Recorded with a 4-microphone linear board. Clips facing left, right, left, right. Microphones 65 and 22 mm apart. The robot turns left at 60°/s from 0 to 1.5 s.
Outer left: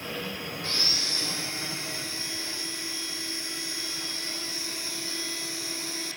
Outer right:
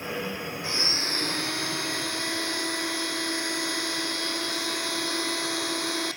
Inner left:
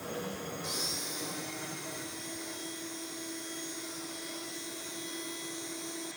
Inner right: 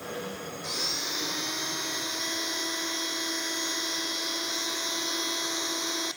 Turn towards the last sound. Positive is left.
turn(degrees=-65)